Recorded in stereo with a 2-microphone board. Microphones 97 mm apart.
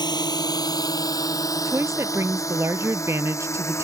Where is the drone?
45° left (ahead or behind); by 3.8 s 30° left (ahead or behind).